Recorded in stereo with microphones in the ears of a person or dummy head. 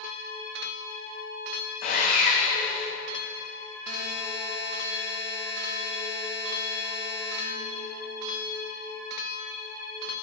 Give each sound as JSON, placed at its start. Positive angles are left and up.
{"t": 1.8, "sound": "sawing", "side_deg": 45, "distance_m": 2.0}
{"t": 3.9, "sound": "a buzzer", "side_deg": 55, "distance_m": 1.7}